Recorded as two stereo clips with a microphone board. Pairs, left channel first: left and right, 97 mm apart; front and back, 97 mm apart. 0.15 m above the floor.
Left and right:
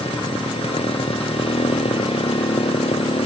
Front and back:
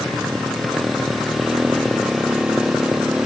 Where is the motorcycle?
90° left; by 3.3 s 95° left.